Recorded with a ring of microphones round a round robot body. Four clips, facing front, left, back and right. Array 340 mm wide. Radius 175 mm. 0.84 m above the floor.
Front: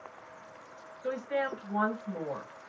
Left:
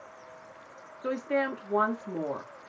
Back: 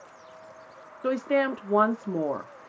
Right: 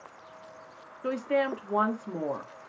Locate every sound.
1.0 s a woman speaking: 175° right, 1.4 m